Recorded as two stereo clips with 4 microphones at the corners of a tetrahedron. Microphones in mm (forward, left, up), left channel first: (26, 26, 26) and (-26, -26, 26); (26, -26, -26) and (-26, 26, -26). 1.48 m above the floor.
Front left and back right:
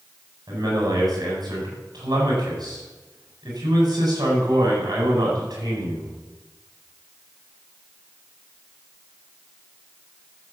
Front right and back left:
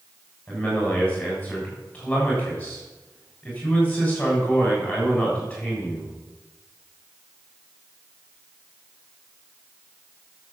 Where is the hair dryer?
No hair dryer in this recording.